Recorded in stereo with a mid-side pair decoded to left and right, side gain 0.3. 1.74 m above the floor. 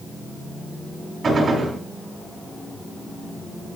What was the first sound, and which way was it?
A gunshot, 70° right.